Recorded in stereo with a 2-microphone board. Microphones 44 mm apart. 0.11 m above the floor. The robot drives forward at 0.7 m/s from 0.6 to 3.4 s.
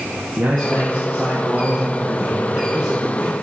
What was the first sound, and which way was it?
A man speaking, 35° right (ahead or behind).